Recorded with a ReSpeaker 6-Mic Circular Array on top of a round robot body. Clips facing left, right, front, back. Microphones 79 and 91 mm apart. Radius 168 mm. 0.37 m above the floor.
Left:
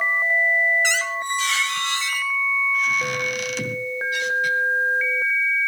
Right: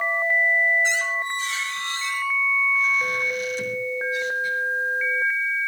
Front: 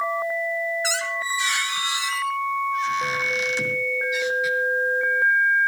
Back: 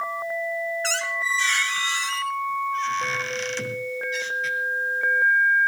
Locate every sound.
0.8 s a squeak: 80° left, 2.5 m